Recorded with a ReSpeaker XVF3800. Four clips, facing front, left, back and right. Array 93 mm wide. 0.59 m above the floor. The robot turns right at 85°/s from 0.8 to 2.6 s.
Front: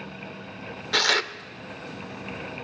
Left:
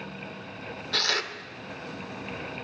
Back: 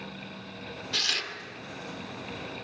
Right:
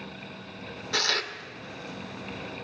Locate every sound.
0.9 s tearing paper: 15° right, 0.6 m; by 1.3 s 20° left, 0.6 m